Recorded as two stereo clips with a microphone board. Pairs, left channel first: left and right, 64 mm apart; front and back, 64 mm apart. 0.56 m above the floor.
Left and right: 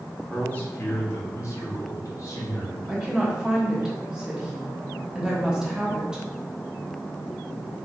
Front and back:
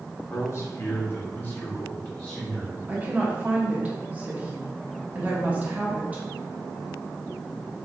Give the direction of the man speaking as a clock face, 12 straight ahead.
11 o'clock.